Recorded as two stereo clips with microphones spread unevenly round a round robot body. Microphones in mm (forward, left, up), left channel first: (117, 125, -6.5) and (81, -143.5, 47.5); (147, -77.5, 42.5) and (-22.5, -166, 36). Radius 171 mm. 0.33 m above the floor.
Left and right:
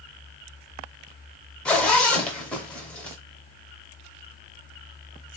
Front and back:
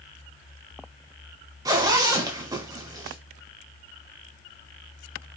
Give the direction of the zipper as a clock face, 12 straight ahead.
7 o'clock.